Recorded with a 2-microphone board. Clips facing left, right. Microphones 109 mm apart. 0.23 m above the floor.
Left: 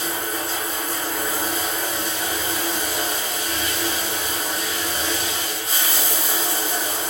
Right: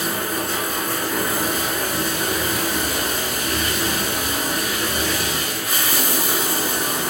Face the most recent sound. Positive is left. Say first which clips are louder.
# right 3 dB
turn(degrees=-65)  # may be behind; listen again after turning